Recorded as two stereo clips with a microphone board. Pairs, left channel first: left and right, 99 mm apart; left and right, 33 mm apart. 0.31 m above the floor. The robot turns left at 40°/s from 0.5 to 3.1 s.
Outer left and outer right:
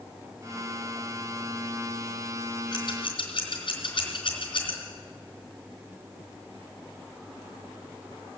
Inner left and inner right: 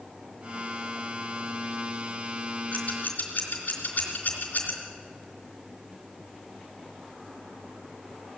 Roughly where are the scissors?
Left.